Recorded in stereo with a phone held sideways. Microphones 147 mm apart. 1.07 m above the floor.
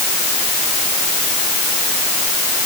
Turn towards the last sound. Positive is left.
No sound to turn to.